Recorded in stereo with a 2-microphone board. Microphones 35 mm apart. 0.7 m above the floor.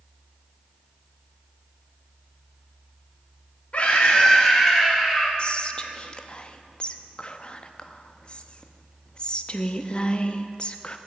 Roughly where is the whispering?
Left.